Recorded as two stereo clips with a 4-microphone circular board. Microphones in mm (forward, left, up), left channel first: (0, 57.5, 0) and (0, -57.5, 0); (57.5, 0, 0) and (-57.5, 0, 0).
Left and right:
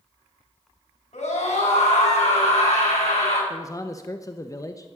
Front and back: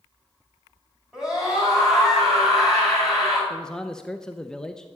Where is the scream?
95° left, 8 m.